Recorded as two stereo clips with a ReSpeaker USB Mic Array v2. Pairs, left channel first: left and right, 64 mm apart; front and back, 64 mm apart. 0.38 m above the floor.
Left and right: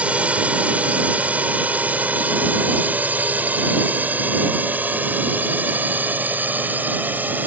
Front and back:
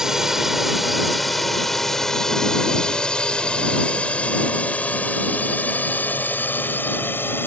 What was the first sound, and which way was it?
A drone, 110° right.